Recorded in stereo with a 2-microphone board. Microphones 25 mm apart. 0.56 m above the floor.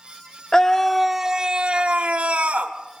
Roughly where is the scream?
Left.